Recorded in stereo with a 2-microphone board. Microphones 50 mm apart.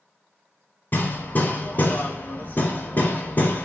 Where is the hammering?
35° left (ahead or behind), 0.7 m.